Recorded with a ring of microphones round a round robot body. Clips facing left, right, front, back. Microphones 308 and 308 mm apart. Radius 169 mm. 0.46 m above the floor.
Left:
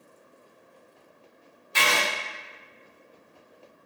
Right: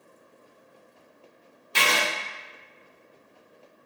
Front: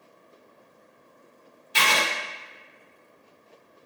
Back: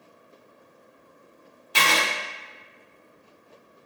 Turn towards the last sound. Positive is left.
turn(degrees=-140)